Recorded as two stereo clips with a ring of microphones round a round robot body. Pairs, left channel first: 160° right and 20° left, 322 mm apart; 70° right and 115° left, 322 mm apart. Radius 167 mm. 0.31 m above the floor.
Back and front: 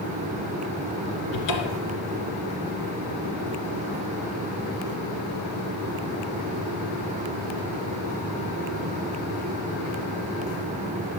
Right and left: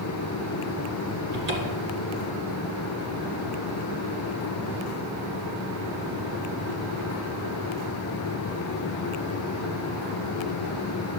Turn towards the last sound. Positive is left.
turn(degrees=170)